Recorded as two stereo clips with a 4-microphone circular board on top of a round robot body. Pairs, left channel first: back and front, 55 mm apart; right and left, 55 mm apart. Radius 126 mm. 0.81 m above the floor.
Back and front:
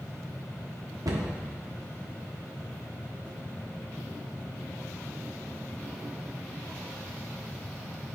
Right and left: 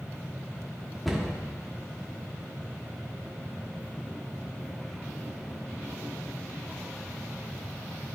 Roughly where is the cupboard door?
Ahead.